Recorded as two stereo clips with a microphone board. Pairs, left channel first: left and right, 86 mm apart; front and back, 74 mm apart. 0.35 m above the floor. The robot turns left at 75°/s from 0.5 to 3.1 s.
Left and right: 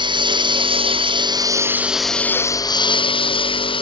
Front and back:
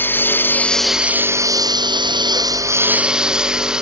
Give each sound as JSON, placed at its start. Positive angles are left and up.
{"t": 0.0, "sound": "a lawn mower", "azimuth_deg": -65}